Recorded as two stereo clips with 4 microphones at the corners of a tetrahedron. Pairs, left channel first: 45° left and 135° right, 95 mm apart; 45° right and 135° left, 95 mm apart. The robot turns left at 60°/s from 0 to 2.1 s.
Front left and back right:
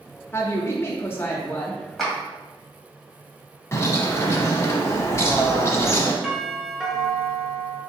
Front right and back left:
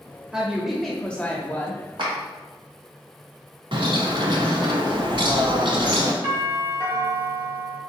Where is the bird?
105° left, 0.8 m.